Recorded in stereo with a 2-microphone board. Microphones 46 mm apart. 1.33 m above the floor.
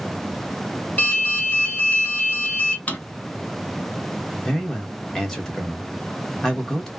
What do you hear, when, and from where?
1.0 s an alarm: 30° left (ahead or behind), 1.4 m
2.9 s a drawer: 35° left (ahead or behind), 0.6 m
4.4 s a man speaking: 15° left (ahead or behind), 1.1 m